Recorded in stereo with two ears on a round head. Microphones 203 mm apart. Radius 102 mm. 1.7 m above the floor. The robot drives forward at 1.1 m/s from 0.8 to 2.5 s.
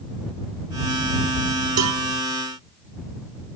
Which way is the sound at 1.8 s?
85° right.